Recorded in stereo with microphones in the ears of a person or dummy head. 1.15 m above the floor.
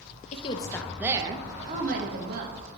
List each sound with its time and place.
0.3 s a woman speaking: 35° left (ahead or behind), 1.0 m; by 2.7 s 60° right (ahead or behind), 2 m